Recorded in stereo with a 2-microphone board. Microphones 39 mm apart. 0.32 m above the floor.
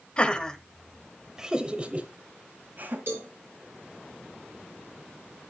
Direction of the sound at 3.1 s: 65° right (ahead or behind).